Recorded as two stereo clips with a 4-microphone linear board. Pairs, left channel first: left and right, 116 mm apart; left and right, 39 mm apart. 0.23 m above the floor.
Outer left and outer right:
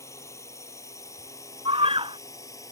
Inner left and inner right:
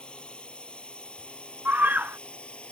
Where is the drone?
25° left (ahead or behind); by 2.7 s 30° left (ahead or behind).